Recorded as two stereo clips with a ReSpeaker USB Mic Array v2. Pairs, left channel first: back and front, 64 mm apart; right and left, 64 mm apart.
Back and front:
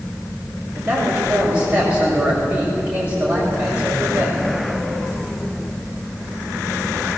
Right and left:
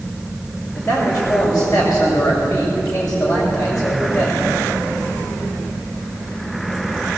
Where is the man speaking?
65° right, 7 m.